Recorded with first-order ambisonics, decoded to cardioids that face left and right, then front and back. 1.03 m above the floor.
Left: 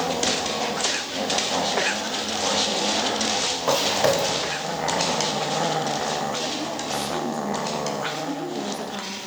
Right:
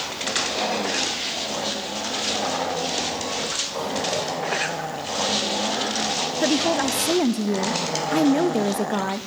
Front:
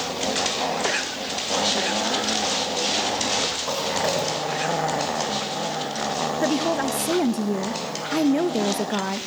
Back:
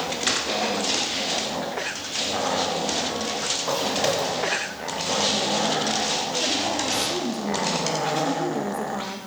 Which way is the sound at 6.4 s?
55° right.